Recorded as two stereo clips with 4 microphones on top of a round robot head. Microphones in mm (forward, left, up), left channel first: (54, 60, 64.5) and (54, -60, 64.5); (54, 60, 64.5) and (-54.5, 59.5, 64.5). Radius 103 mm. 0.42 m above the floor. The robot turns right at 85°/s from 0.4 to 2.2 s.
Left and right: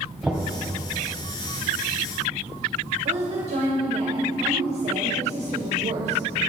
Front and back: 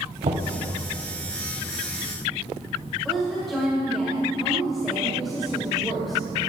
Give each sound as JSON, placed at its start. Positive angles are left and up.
{"t": 0.2, "sound": "knocking", "azimuth_deg": -175, "distance_m": 2.0}
{"t": 3.0, "sound": "a woman speaking", "azimuth_deg": -90, "distance_m": 2.0}